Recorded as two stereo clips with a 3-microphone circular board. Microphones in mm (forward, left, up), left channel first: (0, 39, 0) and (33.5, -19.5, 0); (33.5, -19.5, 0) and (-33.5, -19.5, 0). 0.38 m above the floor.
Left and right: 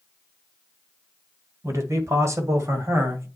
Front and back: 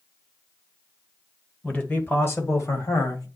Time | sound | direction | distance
1.6 | a man speaking | 60° right | 1.6 m